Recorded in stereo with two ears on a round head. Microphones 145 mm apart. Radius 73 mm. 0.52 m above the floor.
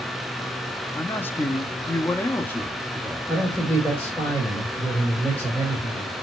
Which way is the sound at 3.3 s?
10° left (ahead or behind).